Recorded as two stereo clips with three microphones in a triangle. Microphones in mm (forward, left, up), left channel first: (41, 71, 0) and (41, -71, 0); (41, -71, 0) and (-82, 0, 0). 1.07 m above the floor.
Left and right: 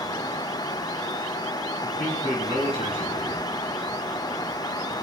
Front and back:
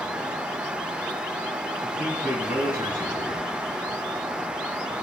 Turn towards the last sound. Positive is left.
turn(degrees=-40)